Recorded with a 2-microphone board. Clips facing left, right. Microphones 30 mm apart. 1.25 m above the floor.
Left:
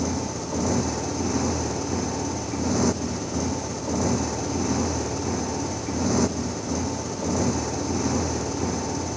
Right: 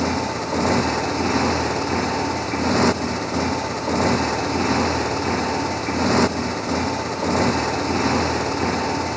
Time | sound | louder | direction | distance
0.0 | a motorcycle | right 5 dB | 50° right (ahead or behind) | ?